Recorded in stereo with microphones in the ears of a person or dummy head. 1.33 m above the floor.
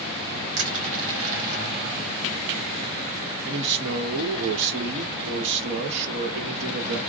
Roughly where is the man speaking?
Right.